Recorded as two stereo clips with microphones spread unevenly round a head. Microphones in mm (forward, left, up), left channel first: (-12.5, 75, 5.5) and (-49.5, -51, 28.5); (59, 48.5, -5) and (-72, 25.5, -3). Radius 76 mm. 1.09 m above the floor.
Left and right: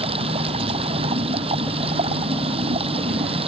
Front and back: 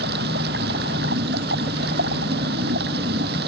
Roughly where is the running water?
Behind right.